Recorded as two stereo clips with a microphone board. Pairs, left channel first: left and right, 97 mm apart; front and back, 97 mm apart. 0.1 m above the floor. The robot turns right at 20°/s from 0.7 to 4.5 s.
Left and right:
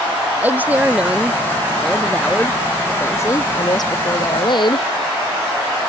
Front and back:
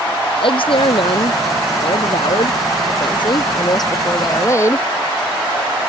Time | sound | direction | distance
0.4 | a woman speaking | 15° right | ?